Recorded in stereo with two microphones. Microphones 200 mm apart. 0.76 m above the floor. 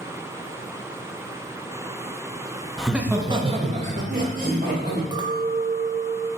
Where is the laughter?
Centre (ahead or behind), 0.6 m; by 5.0 s 45° right (ahead or behind), 1.2 m.